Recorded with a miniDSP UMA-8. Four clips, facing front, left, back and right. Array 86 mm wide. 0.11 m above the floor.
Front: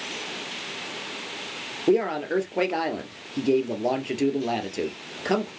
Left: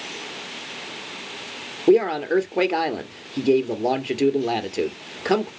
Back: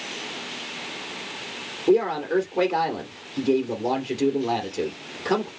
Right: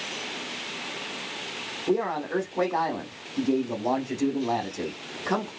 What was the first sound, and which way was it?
A man speaking, 75° left.